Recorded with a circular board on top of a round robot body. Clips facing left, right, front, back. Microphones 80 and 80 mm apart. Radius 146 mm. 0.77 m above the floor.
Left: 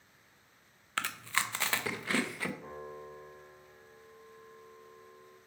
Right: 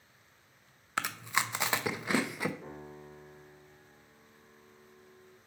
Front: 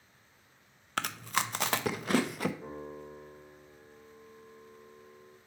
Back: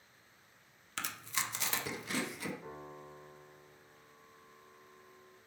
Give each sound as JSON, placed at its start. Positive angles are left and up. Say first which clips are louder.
{"t": 1.0, "sound": "chewing", "louder": "right 2 dB, front 8 dB", "azimuth_deg": -20, "distance_m": 0.7}
{"t": 2.6, "sound": "a piano", "louder": "left 2 dB, front 5 dB", "azimuth_deg": -15, "distance_m": 3.0}